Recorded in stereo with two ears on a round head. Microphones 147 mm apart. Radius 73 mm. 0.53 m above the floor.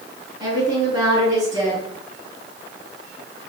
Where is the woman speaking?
25° right (ahead or behind), 3.5 m.